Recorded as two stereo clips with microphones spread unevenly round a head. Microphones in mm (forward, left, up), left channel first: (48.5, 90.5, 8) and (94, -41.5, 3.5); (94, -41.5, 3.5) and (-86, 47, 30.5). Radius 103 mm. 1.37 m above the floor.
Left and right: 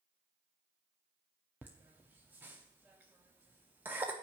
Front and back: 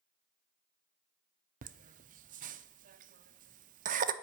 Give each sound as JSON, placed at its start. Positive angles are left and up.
{"t": 1.6, "sound": "laughter", "azimuth_deg": -150, "distance_m": 0.5}